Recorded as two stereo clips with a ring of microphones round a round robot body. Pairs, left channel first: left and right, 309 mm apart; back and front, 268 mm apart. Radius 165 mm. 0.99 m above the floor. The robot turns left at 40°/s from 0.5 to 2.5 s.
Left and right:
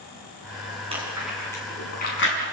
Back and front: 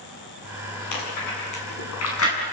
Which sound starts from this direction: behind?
Chewing, at 0.9 s.